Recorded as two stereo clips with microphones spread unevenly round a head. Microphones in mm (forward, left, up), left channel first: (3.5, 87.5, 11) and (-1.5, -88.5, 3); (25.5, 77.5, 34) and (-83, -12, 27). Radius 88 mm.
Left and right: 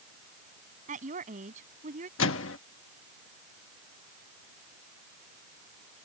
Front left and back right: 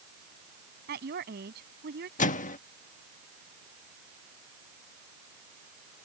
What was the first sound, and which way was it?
A woman speaking, 140° right.